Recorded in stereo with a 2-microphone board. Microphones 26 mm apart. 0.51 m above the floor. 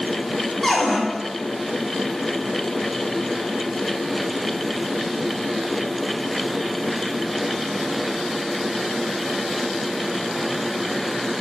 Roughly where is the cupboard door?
Centre.